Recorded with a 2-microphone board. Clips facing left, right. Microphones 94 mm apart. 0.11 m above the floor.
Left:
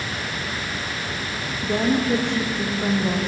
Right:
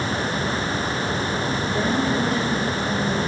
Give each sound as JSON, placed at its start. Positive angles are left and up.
{"t": 1.6, "sound": "a woman speaking", "side_deg": 80, "distance_m": 7.0}